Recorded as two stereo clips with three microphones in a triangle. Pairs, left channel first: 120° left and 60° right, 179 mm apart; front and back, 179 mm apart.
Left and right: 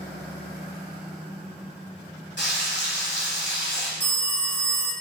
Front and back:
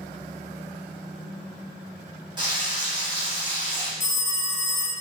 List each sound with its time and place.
2.4 s frying: 115° left, 1.6 m
4.0 s a phone ringing: 40° left, 0.7 m